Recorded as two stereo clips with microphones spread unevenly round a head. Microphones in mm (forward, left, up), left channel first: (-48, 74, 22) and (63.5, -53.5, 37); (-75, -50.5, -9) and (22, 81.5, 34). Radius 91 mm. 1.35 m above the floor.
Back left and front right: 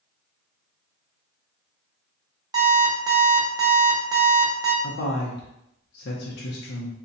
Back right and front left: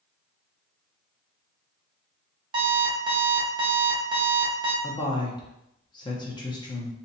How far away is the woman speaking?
About 0.7 m.